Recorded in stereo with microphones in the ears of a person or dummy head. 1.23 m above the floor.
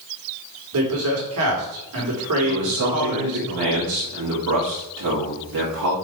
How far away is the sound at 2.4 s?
About 2 m.